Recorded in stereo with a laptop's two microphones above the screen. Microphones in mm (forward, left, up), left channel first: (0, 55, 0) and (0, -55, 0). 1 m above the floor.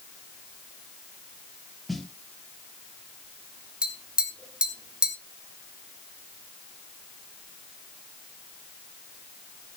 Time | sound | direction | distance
1.9 | a snare drum | centre (ahead or behind) | 1.0 m
3.8 | tapping | 10° right (ahead or behind) | 1.3 m